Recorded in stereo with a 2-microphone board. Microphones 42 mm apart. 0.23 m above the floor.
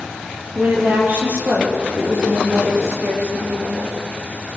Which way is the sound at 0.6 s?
45° right (ahead or behind).